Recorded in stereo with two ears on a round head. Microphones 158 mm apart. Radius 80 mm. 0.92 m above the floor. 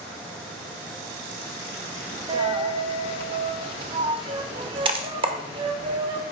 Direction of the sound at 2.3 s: 30° right (ahead or behind).